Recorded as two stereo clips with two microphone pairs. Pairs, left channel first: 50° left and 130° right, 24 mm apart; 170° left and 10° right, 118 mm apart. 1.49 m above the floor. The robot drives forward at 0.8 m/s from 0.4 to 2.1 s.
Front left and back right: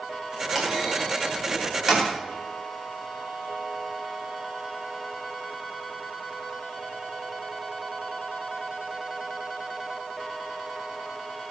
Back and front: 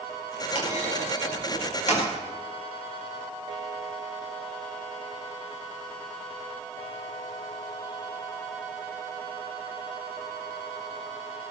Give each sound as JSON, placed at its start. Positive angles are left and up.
{"t": 0.6, "sound": "a clunk", "azimuth_deg": 145, "distance_m": 9.0}